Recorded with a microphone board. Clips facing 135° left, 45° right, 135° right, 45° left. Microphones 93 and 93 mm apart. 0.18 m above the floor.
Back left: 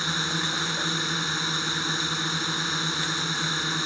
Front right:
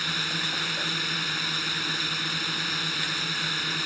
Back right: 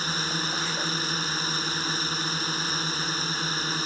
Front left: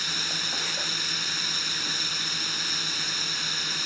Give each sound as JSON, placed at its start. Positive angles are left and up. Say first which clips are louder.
{"t": 0.0, "sound": "a drone", "louder": "back left 3 dB, back right 5 dB", "azimuth_deg": -170}